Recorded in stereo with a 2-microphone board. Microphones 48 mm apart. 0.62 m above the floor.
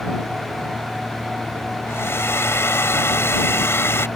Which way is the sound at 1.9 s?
70° left (ahead or behind).